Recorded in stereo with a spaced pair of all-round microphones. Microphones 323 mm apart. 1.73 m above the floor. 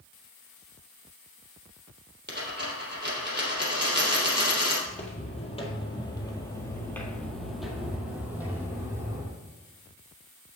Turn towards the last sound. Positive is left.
turn(degrees=-10)  # may be behind; listen again after turning